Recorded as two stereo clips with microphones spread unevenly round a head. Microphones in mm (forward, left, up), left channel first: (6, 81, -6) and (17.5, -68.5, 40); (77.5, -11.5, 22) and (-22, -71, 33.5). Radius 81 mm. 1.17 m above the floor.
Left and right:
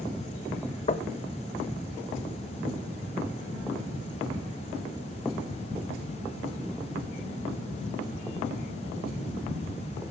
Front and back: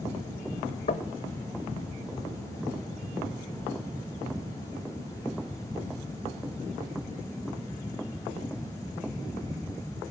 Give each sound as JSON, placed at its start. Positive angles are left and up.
{"t": 0.9, "sound": "knocking", "azimuth_deg": 60, "distance_m": 0.7}